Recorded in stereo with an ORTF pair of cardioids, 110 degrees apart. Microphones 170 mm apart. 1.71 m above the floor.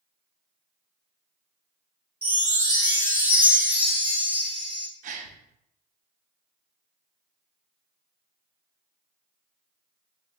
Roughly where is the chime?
Ahead.